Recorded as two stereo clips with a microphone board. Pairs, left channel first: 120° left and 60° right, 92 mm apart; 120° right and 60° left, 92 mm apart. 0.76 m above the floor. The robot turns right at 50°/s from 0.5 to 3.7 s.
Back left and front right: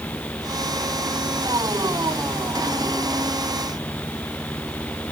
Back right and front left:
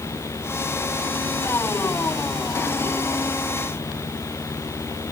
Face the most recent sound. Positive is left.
No sound to turn to.